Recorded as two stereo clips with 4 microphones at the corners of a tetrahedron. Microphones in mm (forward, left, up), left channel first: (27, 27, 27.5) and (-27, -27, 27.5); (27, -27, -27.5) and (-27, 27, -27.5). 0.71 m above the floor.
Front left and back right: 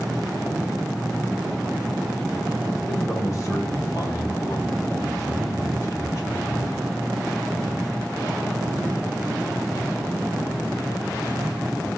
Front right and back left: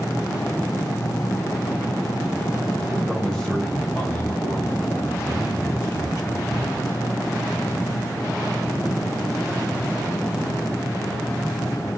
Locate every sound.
2.9 s a man speaking: 55° left, 1.1 m; by 6.8 s 5° right, 3 m